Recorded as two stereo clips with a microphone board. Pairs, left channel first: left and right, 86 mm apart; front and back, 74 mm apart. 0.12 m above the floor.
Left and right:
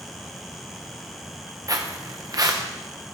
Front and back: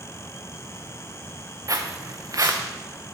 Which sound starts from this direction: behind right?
Footsteps, at 1.7 s.